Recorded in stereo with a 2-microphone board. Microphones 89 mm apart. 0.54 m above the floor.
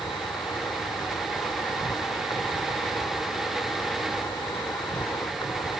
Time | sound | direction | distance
0.0 | an insect | 55° left (ahead or behind) | ?